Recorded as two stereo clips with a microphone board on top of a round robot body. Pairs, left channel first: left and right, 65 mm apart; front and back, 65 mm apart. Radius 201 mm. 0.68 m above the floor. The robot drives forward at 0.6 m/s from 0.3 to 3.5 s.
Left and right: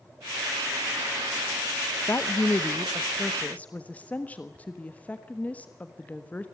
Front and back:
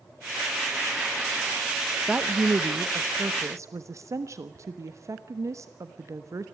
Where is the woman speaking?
115° left, 1.1 m; by 6.5 s 155° left, 1.5 m.